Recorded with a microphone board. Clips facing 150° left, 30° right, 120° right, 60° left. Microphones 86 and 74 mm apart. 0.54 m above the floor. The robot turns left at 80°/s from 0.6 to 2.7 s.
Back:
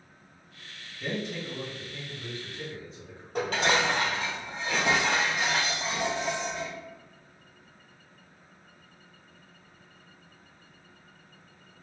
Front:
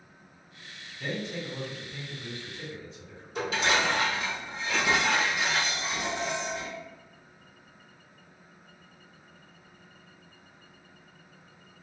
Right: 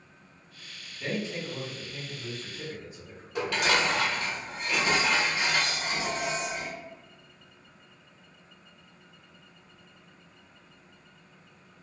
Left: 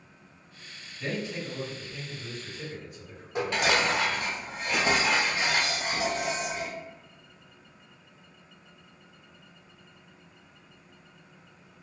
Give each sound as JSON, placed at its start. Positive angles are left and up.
{"t": 1.0, "sound": "a man speaking", "azimuth_deg": -40, "distance_m": 1.9}
{"t": 3.4, "sound": "dishes clattering", "azimuth_deg": 125, "distance_m": 1.5}